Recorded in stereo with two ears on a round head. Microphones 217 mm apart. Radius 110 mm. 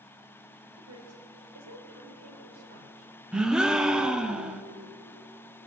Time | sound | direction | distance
0.7 | a woman speaking | 55° right (ahead or behind) | 3 m
3.3 | a gasp | 5° right (ahead or behind) | 0.8 m